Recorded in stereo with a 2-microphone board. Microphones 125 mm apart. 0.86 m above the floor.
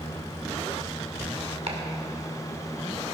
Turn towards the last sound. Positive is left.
turn(degrees=-60)  # may be behind; listen again after turning